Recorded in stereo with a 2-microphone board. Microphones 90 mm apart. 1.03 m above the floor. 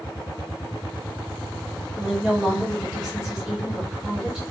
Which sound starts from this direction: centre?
A woman speaking, at 2.0 s.